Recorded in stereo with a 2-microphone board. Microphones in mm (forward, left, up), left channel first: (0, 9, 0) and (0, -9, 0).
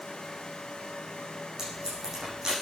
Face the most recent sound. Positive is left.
turn(degrees=-40)  # may be behind; listen again after turning